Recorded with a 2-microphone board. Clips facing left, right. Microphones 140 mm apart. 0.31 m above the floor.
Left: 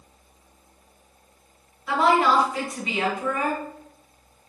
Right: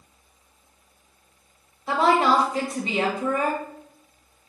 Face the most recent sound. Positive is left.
turn(degrees=-30)  # may be behind; listen again after turning